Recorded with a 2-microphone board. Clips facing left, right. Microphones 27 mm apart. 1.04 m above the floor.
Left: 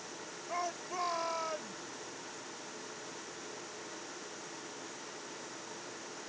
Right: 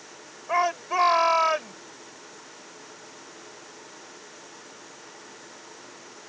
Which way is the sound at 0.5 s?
65° right (ahead or behind).